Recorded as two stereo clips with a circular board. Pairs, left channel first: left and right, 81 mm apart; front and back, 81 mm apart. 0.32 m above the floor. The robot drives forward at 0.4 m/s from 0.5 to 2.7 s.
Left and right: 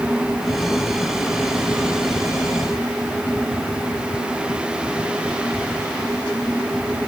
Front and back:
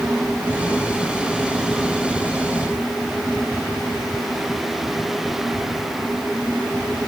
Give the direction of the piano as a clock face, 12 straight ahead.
No piano in this recording.